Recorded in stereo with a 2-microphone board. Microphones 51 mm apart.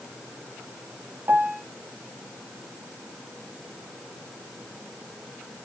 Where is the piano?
55° right (ahead or behind), 1.0 m.